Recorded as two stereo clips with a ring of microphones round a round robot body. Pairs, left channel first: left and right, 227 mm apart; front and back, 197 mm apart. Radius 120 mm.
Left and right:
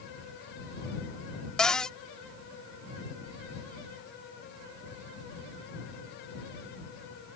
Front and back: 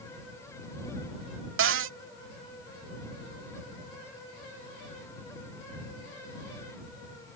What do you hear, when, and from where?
1.6 s a cupboard door: 175° left